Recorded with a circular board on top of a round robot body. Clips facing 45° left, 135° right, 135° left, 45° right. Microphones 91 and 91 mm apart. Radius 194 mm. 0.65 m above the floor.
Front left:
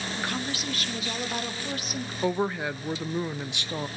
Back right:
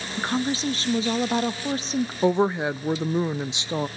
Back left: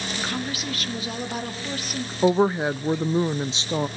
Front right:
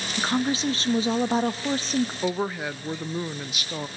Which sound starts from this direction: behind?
A woman speaking, at 2.2 s.